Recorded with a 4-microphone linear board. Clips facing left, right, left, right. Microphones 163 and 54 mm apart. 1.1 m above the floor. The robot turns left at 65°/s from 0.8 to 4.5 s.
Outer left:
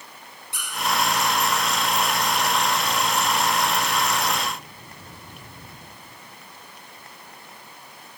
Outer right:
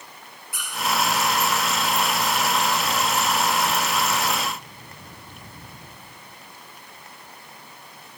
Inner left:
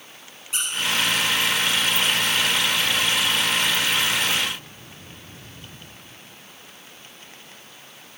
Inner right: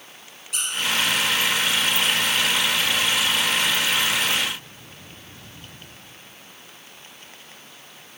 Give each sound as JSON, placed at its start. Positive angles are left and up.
{"t": 0.5, "sound": "a squeak", "side_deg": 30, "distance_m": 2.5}